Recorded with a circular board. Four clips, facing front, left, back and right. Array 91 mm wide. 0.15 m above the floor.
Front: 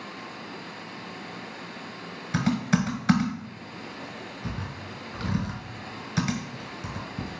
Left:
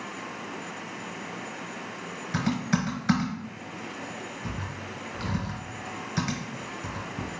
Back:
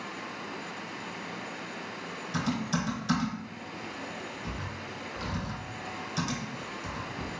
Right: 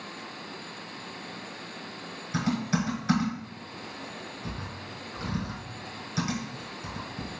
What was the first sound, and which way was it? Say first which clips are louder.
Typing on a keyboard: left 1 dB, front 6 dB; 30° left.